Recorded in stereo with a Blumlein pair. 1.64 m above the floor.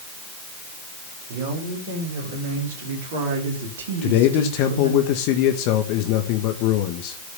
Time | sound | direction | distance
1.3 | a woman speaking | 50° right | 7 m
4.0 | a man speaking | 45° left | 1.5 m